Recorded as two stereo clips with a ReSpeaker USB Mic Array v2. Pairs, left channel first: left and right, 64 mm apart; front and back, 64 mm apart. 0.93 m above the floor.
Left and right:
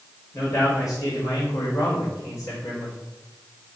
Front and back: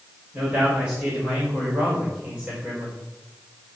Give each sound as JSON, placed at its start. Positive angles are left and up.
{"t": 0.3, "sound": "a man speaking", "azimuth_deg": 115, "distance_m": 5.5}